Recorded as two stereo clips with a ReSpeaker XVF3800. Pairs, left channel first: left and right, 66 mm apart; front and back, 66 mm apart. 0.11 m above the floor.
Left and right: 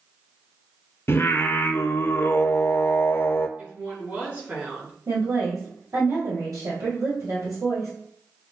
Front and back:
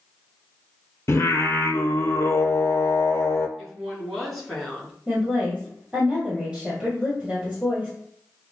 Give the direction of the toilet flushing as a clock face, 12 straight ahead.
No toilet flushing in this recording.